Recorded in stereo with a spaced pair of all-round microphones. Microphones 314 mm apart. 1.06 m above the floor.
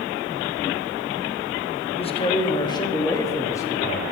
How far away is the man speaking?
About 1.3 m.